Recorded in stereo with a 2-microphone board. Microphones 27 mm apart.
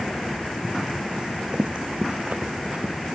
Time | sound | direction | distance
1.2 | running footsteps | 40° right (ahead or behind) | 0.9 m